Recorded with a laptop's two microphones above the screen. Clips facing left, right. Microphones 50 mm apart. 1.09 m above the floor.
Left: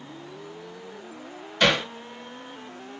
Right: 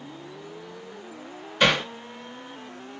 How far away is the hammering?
About 2 m.